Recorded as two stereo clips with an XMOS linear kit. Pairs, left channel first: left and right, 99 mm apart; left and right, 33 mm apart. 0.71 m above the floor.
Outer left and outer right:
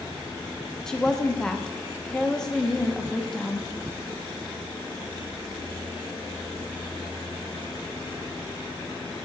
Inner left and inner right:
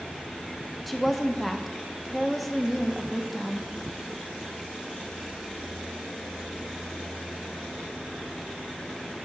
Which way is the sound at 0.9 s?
5° left (ahead or behind).